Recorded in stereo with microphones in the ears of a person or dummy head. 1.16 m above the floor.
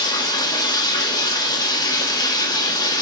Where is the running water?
25° left (ahead or behind), 1.2 m.